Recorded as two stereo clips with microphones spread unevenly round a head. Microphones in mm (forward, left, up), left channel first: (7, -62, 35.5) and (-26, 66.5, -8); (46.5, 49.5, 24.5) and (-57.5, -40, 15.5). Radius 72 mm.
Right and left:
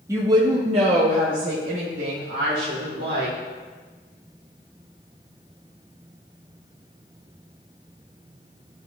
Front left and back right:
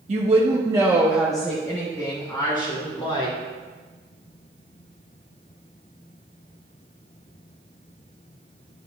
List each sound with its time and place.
0.1 s a woman speaking: straight behind, 1.3 m; by 3.4 s 90° left, 2.5 m